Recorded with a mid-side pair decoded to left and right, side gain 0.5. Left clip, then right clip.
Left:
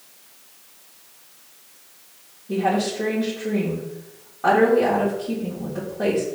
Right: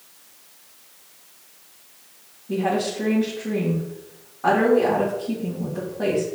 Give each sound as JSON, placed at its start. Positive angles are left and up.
{"t": 2.5, "sound": "a woman speaking", "azimuth_deg": 10, "distance_m": 1.8}